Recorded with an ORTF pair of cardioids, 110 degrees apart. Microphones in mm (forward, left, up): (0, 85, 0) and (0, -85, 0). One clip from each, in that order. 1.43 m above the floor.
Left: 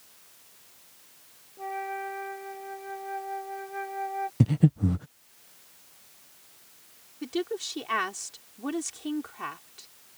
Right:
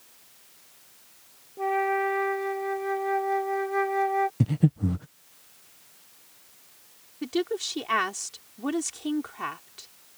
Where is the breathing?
15° left.